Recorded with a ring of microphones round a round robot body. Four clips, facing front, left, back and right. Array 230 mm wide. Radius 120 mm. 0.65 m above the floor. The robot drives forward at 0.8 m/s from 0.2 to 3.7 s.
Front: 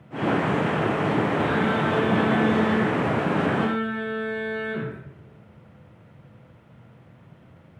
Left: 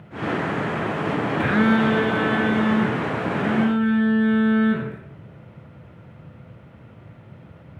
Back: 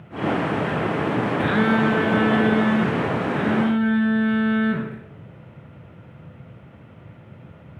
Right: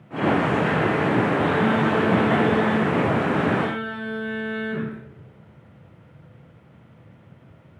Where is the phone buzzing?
115° left, 0.5 m; by 5.0 s 170° left, 2 m.